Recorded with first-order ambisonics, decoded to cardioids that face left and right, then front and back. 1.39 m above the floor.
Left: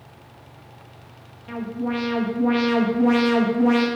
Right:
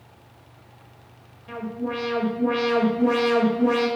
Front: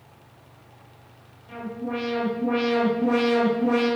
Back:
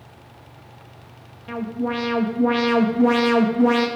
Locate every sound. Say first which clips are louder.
1.5 s an alarm: left 2 dB, back 5 dB; 165° left, 1.7 m